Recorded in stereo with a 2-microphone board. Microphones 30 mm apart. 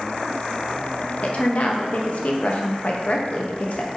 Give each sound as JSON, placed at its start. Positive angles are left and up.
{"t": 1.2, "sound": "a woman speaking", "side_deg": 50, "distance_m": 0.6}